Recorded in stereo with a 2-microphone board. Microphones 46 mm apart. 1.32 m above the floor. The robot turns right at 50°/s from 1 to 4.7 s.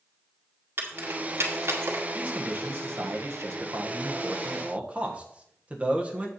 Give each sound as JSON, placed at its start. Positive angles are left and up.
{"t": 0.8, "sound": "keys jangling", "side_deg": -55, "distance_m": 2.0}
{"t": 2.1, "sound": "a man speaking", "azimuth_deg": -155, "distance_m": 1.4}